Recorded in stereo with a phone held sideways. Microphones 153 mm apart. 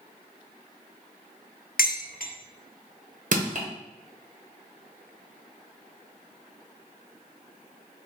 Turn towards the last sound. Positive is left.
turn(degrees=-60)  # may be behind; listen again after turning